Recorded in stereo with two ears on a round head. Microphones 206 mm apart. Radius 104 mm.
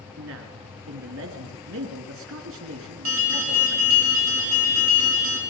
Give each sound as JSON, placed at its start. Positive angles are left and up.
{"t": 0.2, "sound": "a man speaking", "side_deg": -60, "distance_m": 3.0}
{"t": 3.0, "sound": "an alarm", "side_deg": -65, "distance_m": 4.5}